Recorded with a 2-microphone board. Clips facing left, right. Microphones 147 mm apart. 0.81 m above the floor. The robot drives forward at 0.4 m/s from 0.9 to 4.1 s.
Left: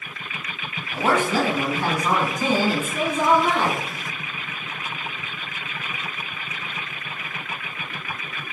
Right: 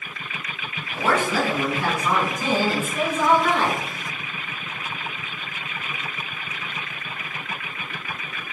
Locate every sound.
0.9 s a woman speaking: 25° left (ahead or behind), 1.5 m; by 3.8 s 15° left (ahead or behind), 2.5 m